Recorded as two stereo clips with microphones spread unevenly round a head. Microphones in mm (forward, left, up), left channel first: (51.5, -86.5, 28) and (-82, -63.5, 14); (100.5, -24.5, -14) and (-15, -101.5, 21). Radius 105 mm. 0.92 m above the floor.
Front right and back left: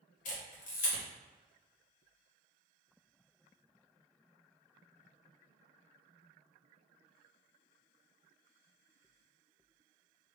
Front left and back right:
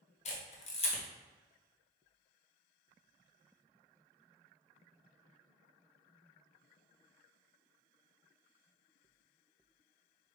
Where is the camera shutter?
20° left, 0.9 m.